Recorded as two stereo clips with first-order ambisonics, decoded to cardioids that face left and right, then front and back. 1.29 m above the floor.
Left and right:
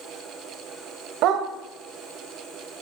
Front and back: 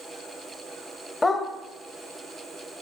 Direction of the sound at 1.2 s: 80° right.